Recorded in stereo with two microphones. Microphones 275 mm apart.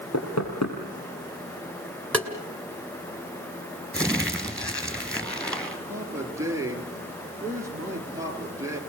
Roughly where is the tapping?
Centre.